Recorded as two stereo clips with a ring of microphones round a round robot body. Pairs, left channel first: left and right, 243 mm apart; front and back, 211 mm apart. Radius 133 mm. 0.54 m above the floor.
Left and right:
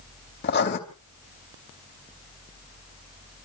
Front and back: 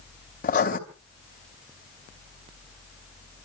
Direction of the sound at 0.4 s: 45° left.